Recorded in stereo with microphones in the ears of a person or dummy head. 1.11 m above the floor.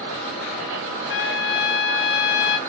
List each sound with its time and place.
1.1 s a trumpet: 65° left (ahead or behind), 1.0 m